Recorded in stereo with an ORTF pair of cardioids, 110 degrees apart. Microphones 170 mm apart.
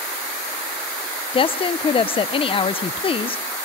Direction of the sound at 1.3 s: 35° left.